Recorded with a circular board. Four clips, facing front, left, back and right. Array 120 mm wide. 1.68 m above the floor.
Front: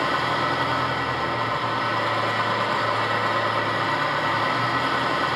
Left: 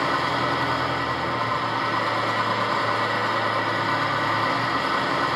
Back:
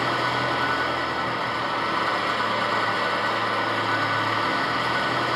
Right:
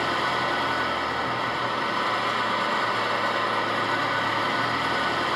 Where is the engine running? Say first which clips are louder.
Left 2 dB, front 1 dB; 15° left, 5.5 m.